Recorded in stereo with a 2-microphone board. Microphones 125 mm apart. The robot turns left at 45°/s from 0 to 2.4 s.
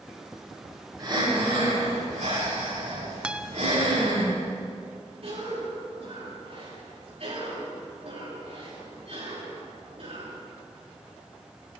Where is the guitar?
10° right (ahead or behind), 0.5 m.